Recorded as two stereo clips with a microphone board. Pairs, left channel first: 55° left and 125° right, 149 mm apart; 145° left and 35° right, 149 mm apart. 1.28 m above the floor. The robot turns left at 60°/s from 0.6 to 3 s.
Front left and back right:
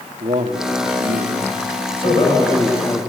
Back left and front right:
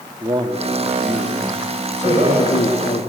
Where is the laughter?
15° left, 5 m; by 2.5 s 15° right, 5 m.